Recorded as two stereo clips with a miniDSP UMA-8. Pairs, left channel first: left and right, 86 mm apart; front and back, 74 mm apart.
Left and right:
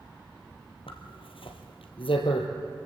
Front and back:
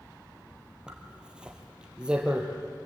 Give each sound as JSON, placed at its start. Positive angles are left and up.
{"t": 0.9, "sound": "a zipper", "azimuth_deg": 100, "distance_m": 2.5}